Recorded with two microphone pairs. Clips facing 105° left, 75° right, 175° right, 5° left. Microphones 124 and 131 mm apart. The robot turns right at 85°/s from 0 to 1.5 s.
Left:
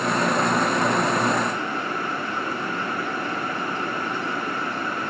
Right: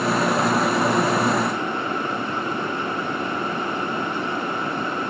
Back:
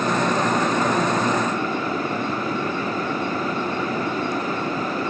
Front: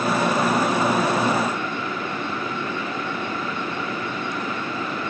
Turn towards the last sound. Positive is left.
No sound to turn to.